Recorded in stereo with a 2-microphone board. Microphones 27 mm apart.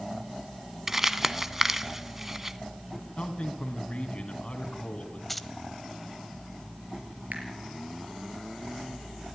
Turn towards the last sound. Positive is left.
turn(degrees=-75)  # may be behind; listen again after turning